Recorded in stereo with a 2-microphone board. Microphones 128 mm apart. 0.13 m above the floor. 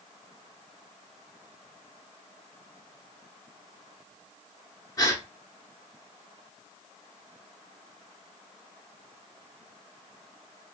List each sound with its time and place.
5.0 s a gasp: 30° left (ahead or behind), 0.7 m